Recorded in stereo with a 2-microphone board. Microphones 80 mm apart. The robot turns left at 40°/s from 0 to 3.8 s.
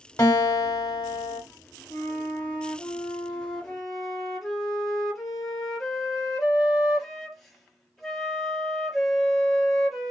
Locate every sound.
0.2 s a guitar: 140° left, 1.1 m; by 1.4 s 90° left, 1.1 m
1.9 s a flute: 25° left (ahead or behind), 0.9 m; by 10.1 s centre (ahead or behind), 0.9 m